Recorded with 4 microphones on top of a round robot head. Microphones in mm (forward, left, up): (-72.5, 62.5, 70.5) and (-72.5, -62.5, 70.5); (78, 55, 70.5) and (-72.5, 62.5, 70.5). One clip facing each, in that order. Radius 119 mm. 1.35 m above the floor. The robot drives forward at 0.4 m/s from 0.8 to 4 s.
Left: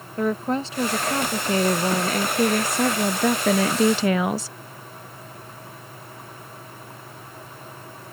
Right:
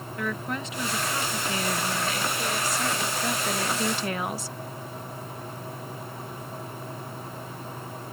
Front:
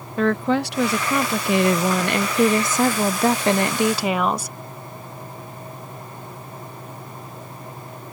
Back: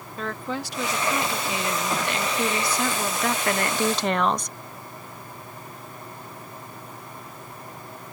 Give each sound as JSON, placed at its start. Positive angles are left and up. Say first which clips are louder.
{"t": 0.2, "sound": "a woman speaking", "louder": "left 9 dB, front 11 dB", "azimuth_deg": 25}